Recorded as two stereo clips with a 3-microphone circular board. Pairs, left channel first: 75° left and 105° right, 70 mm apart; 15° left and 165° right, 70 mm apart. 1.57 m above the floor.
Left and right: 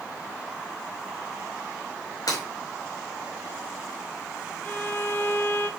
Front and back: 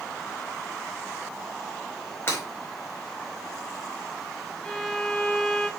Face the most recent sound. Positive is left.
turn(degrees=85)